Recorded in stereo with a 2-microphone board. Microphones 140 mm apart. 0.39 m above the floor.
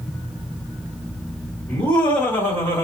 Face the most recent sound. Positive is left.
turn(degrees=20)  # may be behind; listen again after turning